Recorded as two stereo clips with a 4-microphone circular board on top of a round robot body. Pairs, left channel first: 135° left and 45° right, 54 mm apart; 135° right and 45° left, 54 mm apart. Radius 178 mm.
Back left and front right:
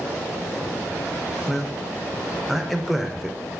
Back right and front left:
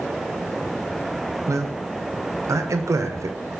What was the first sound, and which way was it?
A man speaking, 45° left.